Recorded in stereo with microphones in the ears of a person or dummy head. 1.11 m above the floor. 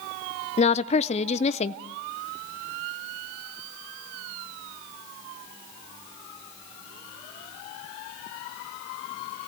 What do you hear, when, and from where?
0.6 s a woman speaking: 30° left (ahead or behind), 0.7 m